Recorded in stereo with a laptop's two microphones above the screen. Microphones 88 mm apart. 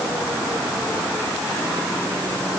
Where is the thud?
No thud in this recording.